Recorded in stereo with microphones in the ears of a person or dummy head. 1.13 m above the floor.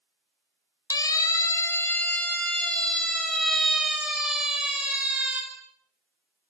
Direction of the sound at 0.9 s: 20° left (ahead or behind).